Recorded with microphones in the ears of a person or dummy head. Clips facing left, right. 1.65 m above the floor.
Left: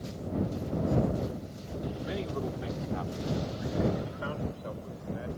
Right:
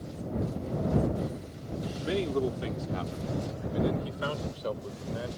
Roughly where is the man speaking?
Right.